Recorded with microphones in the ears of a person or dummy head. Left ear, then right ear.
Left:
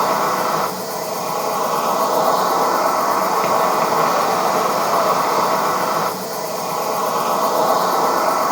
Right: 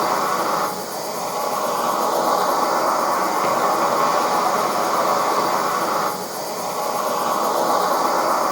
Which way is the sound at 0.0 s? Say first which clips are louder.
Left 2 dB; 35° left (ahead or behind).